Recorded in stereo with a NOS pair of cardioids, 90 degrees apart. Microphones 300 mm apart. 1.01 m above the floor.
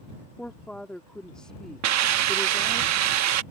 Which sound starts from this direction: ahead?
A woman speaking, at 0.4 s.